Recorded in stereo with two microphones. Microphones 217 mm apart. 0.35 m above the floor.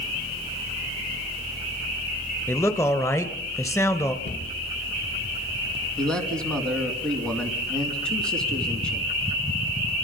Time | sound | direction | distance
2.5 | a man speaking | 15° left (ahead or behind) | 1.7 m
4.2 | a cupboard door | 50° left (ahead or behind) | 5 m
6.0 | a man speaking | 5° left (ahead or behind) | 3 m